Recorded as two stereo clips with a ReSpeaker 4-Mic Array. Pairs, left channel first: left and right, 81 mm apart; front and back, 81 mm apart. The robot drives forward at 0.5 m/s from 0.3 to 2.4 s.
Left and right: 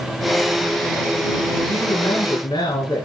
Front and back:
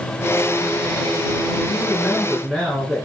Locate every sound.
1.7 s a woman speaking: 90° left, 5 m; by 3.1 s 95° left, 5 m